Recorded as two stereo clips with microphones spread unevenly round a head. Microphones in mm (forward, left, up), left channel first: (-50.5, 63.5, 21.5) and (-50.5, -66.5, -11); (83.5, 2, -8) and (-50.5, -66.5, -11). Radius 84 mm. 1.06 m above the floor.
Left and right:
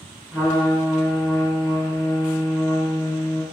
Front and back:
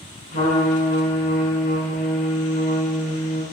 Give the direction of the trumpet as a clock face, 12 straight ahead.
12 o'clock.